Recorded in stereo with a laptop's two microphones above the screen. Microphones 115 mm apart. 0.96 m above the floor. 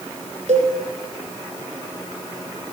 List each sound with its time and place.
0.5 s a cowbell: 75° right (ahead or behind), 5 m